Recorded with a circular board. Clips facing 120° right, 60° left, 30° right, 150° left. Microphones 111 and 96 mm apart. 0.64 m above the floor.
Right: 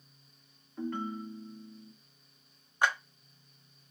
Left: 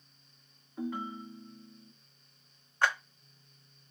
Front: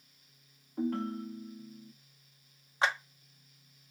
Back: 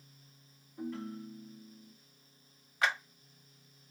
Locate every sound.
0.8 s a ringtone: 20° right, 0.6 m
2.8 s a clap: 55° right, 0.9 m